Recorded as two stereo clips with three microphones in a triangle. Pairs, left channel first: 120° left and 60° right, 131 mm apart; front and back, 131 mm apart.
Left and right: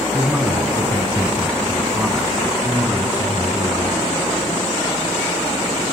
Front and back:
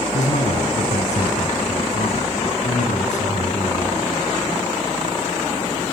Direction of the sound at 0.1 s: 25° left.